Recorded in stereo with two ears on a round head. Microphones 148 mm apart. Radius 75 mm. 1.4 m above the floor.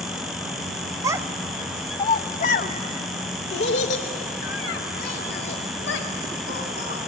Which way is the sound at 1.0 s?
20° right (ahead or behind).